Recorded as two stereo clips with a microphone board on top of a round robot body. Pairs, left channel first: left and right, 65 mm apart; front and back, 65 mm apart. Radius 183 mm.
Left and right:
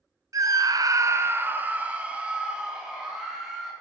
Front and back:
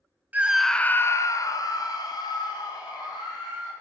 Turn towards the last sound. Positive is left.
turn(degrees=-5)